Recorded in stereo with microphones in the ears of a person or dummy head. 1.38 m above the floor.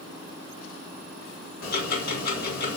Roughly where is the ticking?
Left.